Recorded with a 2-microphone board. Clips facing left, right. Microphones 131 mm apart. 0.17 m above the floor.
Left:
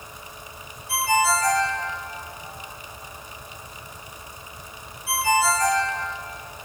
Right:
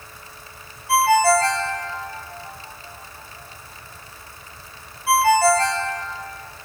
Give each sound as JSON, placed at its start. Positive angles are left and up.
{"t": 0.9, "sound": "a ringtone", "side_deg": -60, "distance_m": 3.0}